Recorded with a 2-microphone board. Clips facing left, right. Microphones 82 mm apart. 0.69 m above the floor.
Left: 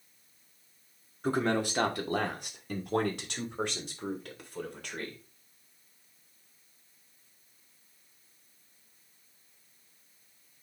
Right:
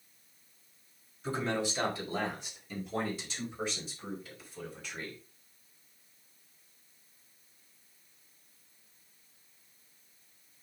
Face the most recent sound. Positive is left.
turn(degrees=65)  # may be behind; listen again after turning